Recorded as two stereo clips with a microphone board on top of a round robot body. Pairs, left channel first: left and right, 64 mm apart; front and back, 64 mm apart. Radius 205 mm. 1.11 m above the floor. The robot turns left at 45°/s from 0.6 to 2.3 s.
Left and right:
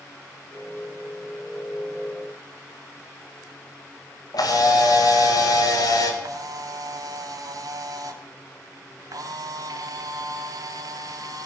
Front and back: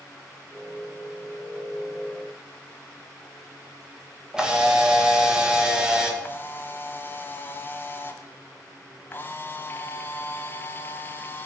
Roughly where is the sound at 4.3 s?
Left.